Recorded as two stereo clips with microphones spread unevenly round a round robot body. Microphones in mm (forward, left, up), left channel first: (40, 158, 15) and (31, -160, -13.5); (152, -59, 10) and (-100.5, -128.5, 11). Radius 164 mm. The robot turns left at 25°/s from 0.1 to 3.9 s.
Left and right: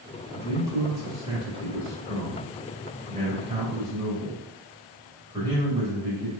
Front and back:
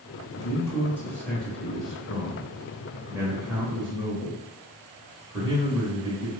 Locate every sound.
0.3 s a man speaking: 35° right, 1.1 m; by 6.3 s 125° right, 1.1 m